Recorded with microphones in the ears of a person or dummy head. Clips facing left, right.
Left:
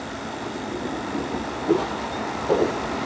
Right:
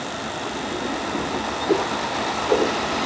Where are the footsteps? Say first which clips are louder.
Even; 15° left (ahead or behind), 3 m; by 2.8 s 30° left (ahead or behind), 2.5 m.